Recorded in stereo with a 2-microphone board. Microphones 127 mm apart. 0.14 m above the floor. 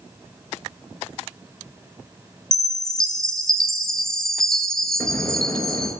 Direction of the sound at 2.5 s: 5° left (ahead or behind).